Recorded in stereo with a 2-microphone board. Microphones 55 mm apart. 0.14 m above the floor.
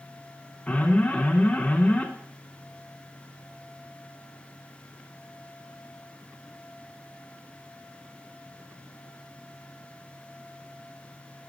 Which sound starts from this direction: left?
An alarm, at 0.7 s.